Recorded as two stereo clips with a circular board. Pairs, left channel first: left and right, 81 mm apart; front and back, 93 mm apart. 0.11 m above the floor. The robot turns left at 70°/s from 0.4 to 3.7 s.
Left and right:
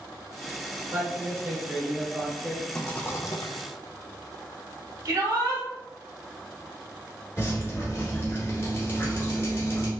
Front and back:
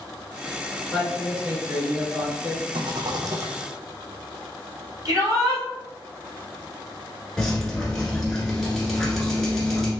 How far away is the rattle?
About 0.8 m.